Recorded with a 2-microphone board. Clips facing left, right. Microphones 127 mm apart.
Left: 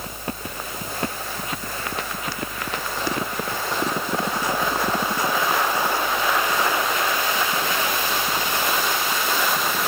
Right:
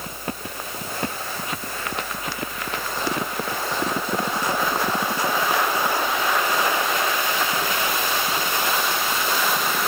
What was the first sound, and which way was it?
Only background noise.